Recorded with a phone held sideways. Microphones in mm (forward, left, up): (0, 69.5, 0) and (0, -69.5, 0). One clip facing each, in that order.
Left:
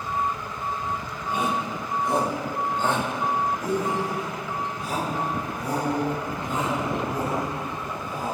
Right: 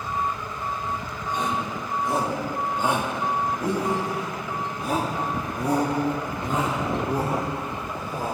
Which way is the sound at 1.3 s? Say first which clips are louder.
Left 1 dB; 10° left (ahead or behind).